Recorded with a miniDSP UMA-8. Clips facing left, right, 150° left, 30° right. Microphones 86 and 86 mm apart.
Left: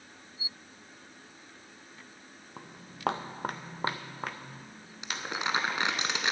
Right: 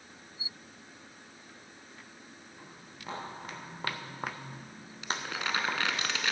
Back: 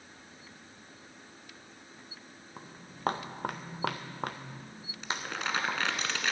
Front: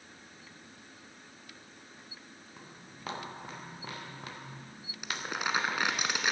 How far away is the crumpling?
About 1.1 m.